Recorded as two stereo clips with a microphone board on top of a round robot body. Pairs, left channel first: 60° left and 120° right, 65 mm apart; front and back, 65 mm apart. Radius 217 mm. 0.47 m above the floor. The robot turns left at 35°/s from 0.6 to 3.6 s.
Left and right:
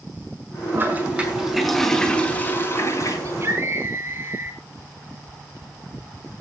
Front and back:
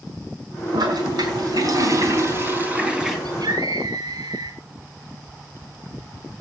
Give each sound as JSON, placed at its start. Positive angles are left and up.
{"t": 0.7, "sound": "a toilet flushing", "azimuth_deg": -175, "distance_m": 5.0}
{"t": 3.2, "sound": "a scream", "azimuth_deg": -165, "distance_m": 6.5}